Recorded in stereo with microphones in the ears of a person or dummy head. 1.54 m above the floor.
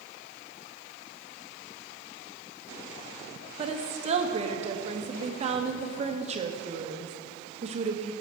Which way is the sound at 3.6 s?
35° right (ahead or behind).